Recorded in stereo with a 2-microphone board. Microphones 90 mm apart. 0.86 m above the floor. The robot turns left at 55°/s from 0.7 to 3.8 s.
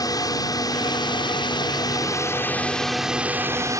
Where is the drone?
125° left; by 3.8 s 50° right.